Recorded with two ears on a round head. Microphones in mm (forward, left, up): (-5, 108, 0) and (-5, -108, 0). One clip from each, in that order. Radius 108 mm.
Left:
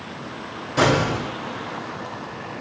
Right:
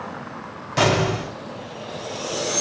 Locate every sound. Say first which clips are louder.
0.8 s an explosion: even; 45° right (ahead or behind), 2.5 m